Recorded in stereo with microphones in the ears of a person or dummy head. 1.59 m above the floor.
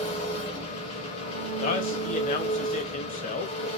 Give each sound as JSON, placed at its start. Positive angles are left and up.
{"t": 0.0, "sound": "an engine running", "side_deg": 40, "distance_m": 0.8}
{"t": 1.6, "sound": "a man speaking", "side_deg": 40, "distance_m": 0.6}